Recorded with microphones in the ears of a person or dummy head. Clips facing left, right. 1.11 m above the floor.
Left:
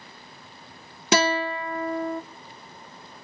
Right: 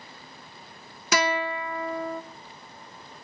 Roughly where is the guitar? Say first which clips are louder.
Left 3 dB; left.